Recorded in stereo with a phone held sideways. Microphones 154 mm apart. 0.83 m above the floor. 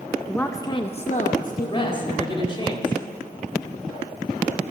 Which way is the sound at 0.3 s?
5° left (ahead or behind).